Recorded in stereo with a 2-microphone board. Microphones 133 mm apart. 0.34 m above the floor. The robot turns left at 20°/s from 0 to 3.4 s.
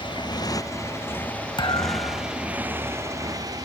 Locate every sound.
0.0 s a motorcycle: 40° left; by 3.6 s 30° right
1.6 s a thud: 40° left (ahead or behind); by 2.4 s 50° left (ahead or behind)